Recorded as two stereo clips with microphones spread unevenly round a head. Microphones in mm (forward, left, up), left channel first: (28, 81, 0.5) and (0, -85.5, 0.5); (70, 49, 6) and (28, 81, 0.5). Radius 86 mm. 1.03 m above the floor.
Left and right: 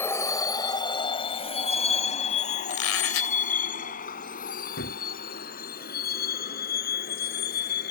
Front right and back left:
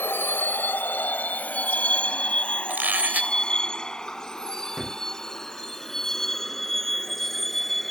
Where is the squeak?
85° left.